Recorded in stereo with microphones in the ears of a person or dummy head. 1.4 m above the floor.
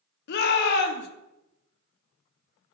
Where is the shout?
55° left (ahead or behind), 0.5 m.